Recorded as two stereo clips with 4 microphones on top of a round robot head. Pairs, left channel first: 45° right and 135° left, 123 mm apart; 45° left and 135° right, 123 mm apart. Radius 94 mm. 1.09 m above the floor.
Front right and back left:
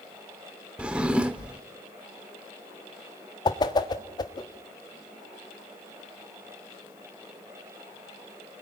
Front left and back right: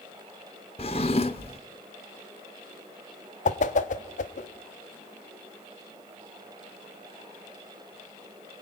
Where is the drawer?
60° left, 0.8 m.